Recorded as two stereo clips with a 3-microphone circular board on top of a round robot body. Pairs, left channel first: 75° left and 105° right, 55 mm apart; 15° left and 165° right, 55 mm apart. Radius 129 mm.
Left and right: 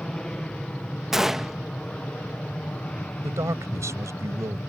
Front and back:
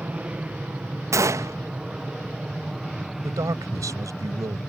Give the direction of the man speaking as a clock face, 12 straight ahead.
5 o'clock.